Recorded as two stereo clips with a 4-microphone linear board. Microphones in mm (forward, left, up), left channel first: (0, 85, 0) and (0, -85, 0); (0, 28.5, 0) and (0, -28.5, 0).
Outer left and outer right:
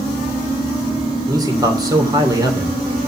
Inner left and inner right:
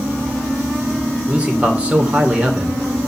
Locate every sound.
1.3 s a man speaking: 20° right (ahead or behind), 3 m